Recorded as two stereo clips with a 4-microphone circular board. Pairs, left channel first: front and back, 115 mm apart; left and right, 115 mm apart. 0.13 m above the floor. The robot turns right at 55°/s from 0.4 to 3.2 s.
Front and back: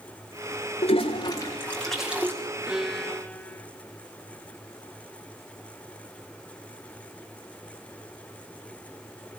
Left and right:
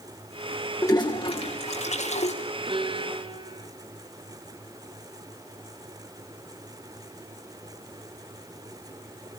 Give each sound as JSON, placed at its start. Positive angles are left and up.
{"t": 0.8, "sound": "a toilet flushing", "azimuth_deg": 25, "distance_m": 5.5}
{"t": 2.7, "sound": "a violin", "azimuth_deg": -100, "distance_m": 1.7}